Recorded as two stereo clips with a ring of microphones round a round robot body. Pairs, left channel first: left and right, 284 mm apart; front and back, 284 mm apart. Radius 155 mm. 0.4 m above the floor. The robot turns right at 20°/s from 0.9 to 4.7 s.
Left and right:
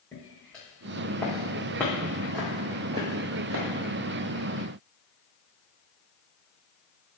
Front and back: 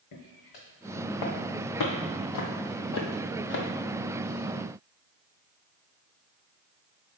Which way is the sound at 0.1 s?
5° left.